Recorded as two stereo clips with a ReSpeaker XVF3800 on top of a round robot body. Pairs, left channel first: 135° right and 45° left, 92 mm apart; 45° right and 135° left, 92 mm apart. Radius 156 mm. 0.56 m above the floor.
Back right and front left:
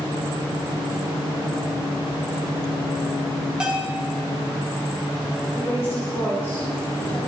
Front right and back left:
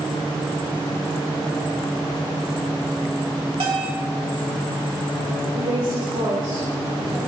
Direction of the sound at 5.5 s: 165° left.